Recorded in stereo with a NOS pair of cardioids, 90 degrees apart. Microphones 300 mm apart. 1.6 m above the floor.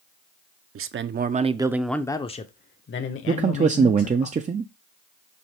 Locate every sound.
0.8 s a man speaking: 50° right, 0.8 m; by 4.3 s 55° left, 1.5 m
3.3 s a man speaking: 25° right, 0.5 m